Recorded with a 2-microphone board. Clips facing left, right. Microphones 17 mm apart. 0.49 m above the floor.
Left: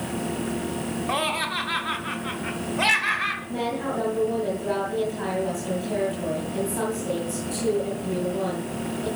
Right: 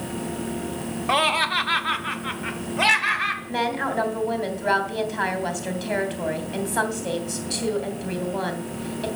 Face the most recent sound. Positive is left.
turn(degrees=-70)  # may be behind; listen again after turning